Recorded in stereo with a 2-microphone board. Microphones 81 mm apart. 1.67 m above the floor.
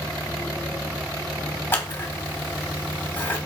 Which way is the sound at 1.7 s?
25° left (ahead or behind).